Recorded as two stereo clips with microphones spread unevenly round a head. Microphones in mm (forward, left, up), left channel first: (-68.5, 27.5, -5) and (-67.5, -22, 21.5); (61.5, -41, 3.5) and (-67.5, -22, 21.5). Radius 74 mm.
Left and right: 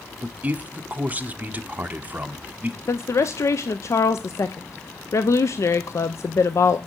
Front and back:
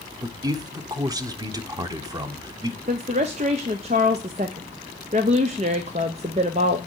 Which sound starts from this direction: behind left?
A woman speaking, at 2.9 s.